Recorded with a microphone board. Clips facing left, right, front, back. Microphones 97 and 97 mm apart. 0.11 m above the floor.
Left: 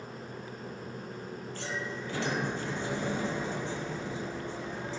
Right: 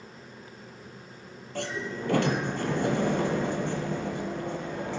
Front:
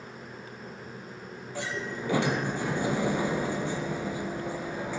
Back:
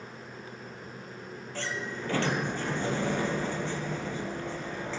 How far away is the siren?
I don't hear a siren.